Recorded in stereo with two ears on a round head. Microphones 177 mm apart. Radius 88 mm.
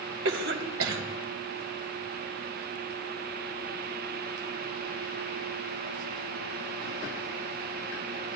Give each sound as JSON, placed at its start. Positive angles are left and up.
{"t": 0.2, "sound": "a cough", "side_deg": -70, "distance_m": 2.0}